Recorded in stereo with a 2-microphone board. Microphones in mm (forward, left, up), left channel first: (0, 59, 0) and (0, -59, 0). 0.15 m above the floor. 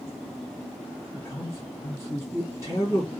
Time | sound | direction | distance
1.1 | a man speaking | 25° left (ahead or behind) | 1.7 m